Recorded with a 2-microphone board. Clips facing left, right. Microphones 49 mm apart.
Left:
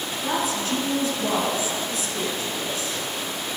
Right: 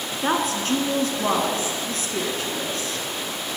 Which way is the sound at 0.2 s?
50° right (ahead or behind).